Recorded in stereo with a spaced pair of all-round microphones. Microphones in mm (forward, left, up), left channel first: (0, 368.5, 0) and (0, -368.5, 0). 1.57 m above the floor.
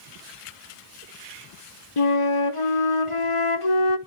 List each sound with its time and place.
2.0 s a flute: 45° left (ahead or behind), 1.2 m